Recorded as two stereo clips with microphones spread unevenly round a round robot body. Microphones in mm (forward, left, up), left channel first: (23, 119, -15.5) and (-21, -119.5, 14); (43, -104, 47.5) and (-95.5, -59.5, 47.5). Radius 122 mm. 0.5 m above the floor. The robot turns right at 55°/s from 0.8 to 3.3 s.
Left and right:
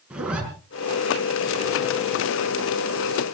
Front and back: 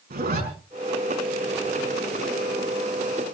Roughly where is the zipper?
Behind.